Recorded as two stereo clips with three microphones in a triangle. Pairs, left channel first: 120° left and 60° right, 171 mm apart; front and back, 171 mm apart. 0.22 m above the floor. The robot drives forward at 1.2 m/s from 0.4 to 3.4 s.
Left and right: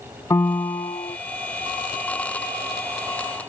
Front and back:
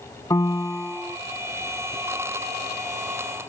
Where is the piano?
60° left; by 1.2 s 100° left.